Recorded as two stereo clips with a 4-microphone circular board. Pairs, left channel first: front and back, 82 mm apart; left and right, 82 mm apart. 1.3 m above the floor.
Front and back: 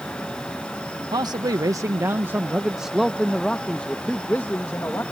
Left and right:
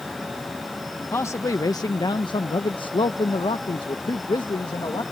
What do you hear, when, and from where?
1.1 s a man speaking: 150° left; by 5.0 s 55° left